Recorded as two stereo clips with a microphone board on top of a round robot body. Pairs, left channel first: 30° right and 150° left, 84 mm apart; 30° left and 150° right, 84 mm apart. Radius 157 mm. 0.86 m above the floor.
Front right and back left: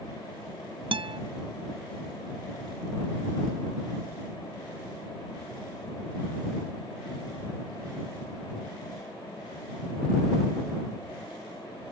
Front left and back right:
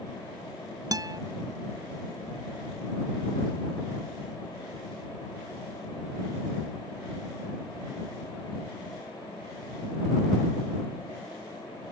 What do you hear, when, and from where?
0.9 s a guitar: 165° left